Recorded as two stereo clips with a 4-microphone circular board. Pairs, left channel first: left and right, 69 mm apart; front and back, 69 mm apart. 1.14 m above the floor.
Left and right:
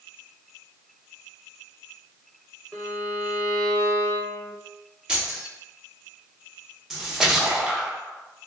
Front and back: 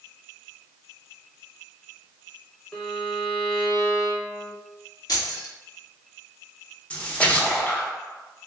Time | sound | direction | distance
2.7 | a violin | 45° left | 0.9 m
5.1 | keys jangling | 15° right | 0.8 m
6.9 | a splash | 20° right | 0.7 m